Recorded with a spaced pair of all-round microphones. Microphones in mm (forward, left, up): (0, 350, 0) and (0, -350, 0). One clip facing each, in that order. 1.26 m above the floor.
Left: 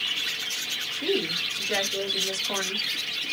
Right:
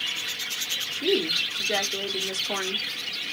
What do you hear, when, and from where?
0.9 s a woman speaking: 10° left (ahead or behind), 1.4 m